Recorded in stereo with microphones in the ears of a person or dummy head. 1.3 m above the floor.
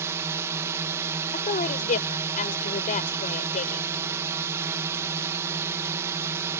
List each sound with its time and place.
0.0 s a drone: 15° right (ahead or behind)
1.3 s a woman speaking: 50° left (ahead or behind)